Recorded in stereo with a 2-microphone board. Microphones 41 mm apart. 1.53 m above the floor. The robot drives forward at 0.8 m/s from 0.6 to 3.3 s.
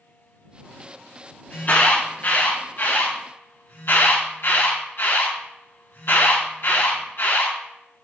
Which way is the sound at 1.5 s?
50° left (ahead or behind).